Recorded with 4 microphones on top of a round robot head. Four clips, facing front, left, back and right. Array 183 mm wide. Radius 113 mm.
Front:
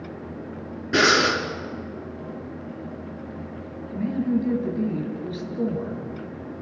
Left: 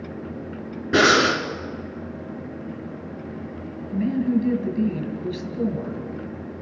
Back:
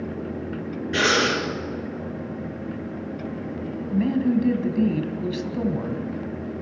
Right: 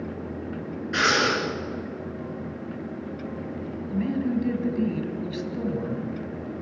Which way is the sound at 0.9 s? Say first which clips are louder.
Left 6 dB, front 2 dB; 80° left.